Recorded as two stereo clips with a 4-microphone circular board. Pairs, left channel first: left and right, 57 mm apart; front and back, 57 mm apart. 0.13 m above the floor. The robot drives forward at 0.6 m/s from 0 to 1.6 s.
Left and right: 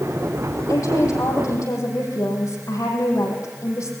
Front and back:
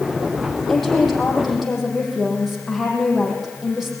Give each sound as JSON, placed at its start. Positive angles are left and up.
{"t": 0.7, "sound": "a woman speaking", "azimuth_deg": 90, "distance_m": 6.0}